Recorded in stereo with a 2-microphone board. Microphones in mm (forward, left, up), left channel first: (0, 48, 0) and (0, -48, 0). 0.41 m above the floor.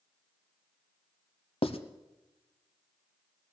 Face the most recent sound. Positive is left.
turn(degrees=70)  # may be behind; listen again after turning